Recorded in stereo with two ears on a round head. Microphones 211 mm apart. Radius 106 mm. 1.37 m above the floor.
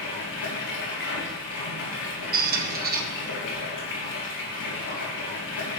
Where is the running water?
55° left (ahead or behind), 4 m.